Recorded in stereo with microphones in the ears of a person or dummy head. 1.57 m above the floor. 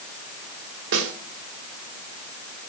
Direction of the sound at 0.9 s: 70° right (ahead or behind).